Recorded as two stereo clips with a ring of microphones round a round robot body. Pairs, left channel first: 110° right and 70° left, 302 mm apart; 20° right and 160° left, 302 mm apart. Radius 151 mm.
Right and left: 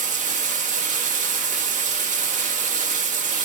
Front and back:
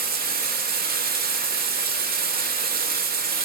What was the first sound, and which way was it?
Running water, 120° left.